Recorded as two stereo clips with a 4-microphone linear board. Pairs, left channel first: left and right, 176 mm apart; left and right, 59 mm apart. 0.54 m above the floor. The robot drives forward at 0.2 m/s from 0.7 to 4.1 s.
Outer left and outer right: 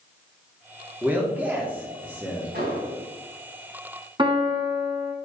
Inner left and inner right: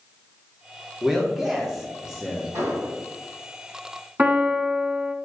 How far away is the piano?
About 1.2 m.